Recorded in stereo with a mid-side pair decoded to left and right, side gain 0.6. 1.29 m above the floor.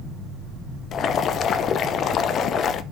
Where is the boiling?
50° left, 0.8 m.